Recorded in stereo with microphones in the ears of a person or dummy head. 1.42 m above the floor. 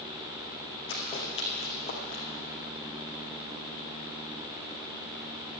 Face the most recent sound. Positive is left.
turn(degrees=30)  # may be behind; listen again after turning